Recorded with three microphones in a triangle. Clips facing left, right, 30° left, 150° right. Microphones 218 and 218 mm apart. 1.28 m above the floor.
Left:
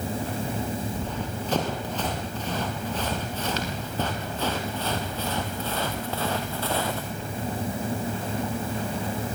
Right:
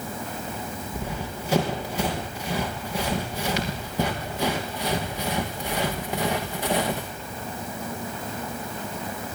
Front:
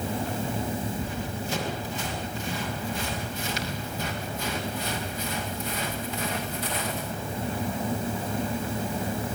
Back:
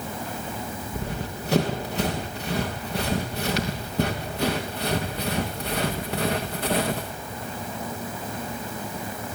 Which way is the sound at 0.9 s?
170° right.